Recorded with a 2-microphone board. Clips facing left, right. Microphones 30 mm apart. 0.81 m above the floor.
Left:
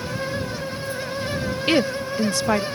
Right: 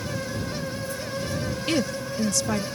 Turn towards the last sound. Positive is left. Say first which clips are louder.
# left 6 dB
turn(degrees=35)  # may be behind; listen again after turning